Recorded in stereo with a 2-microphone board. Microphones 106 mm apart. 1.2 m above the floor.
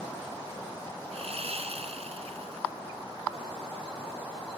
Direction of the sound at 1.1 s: 75° right (ahead or behind).